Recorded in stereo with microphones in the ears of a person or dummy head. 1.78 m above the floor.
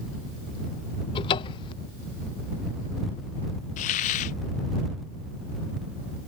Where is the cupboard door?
25° left (ahead or behind).